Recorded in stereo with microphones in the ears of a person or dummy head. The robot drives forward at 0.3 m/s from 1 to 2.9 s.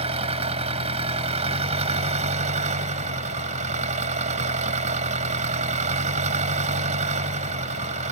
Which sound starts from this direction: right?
An engine running, at 0.0 s.